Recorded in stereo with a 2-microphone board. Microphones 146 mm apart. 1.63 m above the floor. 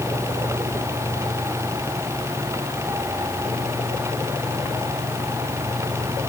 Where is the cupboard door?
I don't hear a cupboard door.